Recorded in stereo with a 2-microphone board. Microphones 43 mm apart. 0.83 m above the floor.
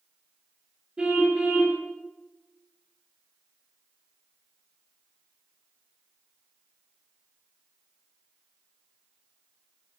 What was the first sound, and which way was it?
A car horn, 20° right (ahead or behind).